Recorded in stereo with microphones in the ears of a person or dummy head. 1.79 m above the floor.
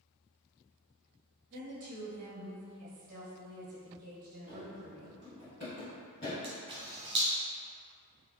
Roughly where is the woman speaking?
Right.